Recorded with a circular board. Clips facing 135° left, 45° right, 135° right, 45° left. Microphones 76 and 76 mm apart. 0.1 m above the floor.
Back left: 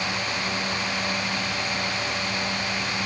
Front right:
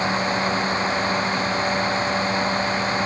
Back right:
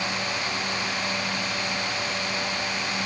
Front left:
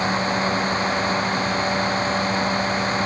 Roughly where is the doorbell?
I don't hear a doorbell.